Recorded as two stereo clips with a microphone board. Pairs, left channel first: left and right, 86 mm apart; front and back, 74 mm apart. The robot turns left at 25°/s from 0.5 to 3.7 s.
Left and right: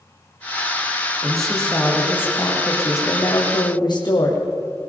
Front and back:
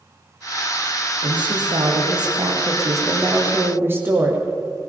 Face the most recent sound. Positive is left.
turn(degrees=120)